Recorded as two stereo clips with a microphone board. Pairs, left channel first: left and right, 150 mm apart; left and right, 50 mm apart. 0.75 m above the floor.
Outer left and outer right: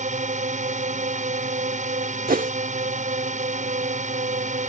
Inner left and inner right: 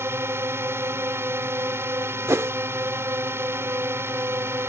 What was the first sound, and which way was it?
A drone, 55° right (ahead or behind).